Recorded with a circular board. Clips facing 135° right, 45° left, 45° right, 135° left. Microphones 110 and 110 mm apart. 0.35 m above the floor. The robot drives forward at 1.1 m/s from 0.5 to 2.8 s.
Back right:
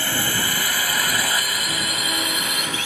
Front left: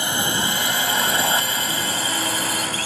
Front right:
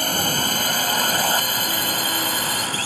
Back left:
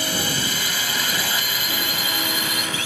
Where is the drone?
20° right; by 2.9 s straight ahead.